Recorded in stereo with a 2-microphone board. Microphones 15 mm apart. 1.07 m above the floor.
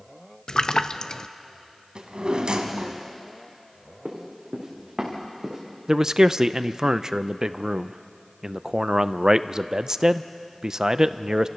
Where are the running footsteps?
45° right (ahead or behind), 4.5 m; by 5.6 s 30° right (ahead or behind), 4.5 m.